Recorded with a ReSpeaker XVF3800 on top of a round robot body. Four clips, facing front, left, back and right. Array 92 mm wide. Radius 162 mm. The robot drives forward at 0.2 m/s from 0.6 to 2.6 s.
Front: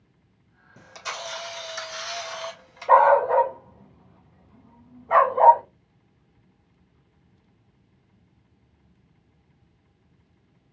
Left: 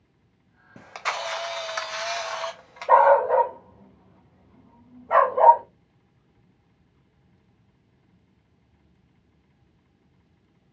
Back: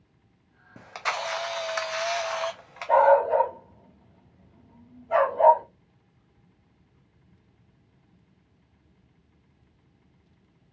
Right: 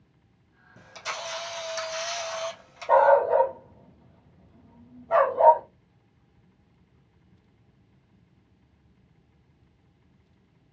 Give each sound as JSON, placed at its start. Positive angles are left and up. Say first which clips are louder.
{"t": 0.8, "sound": "a camera shutter", "louder": "left 6 dB, back 5 dB", "azimuth_deg": 130, "distance_m": 0.7}
{"t": 2.9, "sound": "a dog barking", "louder": "left 2 dB, front 2 dB", "azimuth_deg": 35, "distance_m": 0.7}